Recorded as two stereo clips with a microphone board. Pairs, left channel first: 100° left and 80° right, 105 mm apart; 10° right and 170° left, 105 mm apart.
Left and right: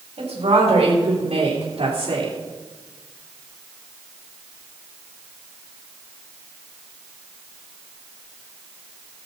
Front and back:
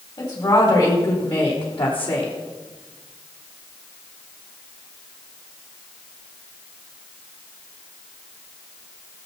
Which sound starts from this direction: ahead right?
A woman speaking, at 0.2 s.